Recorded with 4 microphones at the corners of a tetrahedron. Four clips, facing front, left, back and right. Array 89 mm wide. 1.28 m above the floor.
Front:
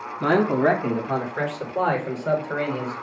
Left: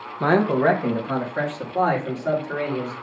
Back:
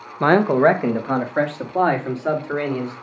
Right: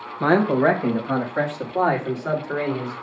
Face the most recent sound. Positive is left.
turn(degrees=-170)